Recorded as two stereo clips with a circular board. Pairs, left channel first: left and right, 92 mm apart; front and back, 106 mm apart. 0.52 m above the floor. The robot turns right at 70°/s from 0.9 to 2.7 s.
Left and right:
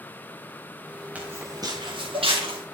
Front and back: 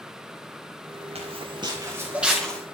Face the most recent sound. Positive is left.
turn(degrees=-70)